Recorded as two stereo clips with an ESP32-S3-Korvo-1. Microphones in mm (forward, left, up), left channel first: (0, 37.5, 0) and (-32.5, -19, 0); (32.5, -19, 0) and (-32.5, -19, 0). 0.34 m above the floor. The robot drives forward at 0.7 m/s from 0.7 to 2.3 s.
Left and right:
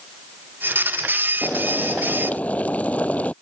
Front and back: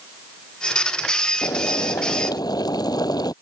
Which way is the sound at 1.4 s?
10° right.